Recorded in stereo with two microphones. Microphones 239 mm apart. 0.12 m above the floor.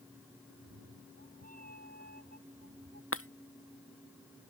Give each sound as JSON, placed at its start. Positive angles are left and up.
{"t": 0.5, "sound": "a cat meowing", "side_deg": -75}
{"t": 3.1, "sound": "breaking glass", "side_deg": 60}